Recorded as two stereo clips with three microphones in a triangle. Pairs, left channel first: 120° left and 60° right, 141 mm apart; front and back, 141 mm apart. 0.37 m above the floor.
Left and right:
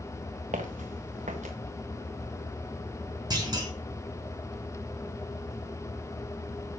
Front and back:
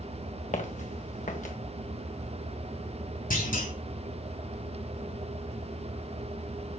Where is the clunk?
Straight ahead, 5 m.